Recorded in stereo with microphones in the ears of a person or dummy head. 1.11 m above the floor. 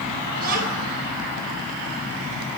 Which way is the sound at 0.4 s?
50° right (ahead or behind).